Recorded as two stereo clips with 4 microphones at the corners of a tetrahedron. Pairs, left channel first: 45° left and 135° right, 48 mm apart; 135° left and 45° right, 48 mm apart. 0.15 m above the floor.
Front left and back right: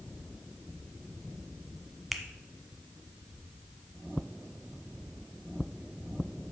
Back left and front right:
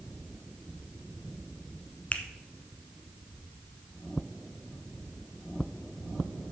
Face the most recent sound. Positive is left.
turn(degrees=135)